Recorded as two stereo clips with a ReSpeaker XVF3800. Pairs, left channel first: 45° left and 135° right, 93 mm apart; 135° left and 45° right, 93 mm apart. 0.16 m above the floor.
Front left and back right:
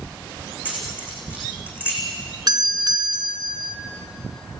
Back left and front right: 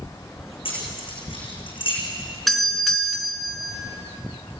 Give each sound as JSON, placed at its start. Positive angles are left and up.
{"t": 0.7, "sound": "keys jangling", "azimuth_deg": 155, "distance_m": 8.5}
{"t": 2.5, "sound": "a doorbell", "azimuth_deg": -135, "distance_m": 2.5}